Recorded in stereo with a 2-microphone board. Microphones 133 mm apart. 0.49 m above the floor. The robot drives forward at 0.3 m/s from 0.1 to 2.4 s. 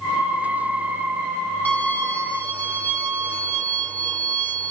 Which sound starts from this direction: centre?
A violin, at 1.6 s.